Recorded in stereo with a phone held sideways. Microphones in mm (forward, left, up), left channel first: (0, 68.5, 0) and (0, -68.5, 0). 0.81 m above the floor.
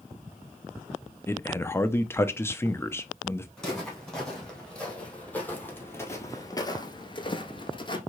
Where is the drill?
I don't hear a drill.